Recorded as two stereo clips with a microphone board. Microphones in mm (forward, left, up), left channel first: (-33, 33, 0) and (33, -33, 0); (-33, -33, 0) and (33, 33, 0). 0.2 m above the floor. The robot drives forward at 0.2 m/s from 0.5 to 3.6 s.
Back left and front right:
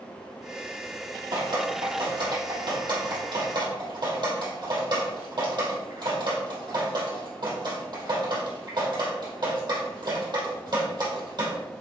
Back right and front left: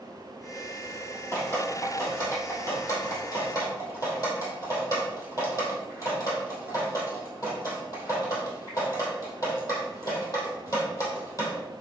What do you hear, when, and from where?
1.3 s dripping: 75° right, 3 m; by 11.6 s 85° right, 3 m